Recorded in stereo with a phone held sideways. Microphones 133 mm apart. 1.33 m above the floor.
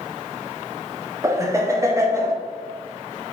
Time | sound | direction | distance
1.2 | laughter | 20° right (ahead or behind) | 0.7 m